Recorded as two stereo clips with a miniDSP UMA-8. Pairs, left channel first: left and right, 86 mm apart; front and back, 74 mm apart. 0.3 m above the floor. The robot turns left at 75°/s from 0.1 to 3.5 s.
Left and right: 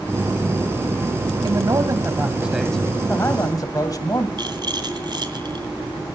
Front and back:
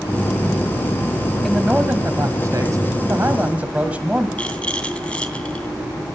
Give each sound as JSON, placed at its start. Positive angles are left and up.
{"t": 1.4, "sound": "a man speaking", "azimuth_deg": -90, "distance_m": 2.0}
{"t": 4.4, "sound": "a rattle", "azimuth_deg": -70, "distance_m": 2.5}